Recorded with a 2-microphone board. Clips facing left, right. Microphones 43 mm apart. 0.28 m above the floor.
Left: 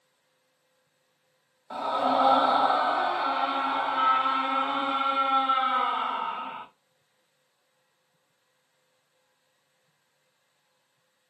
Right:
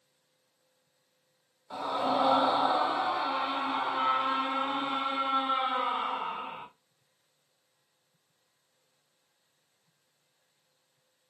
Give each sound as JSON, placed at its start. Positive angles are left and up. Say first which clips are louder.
{"t": 1.7, "sound": "a scream", "louder": "left 4 dB", "side_deg": 30, "distance_m": 1.2}